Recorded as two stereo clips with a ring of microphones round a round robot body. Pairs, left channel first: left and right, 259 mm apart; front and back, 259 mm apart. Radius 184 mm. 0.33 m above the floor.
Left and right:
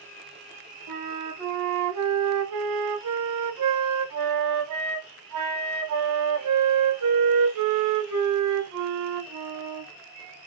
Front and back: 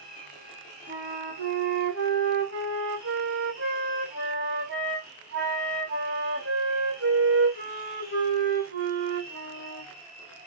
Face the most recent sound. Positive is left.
turn(degrees=-120)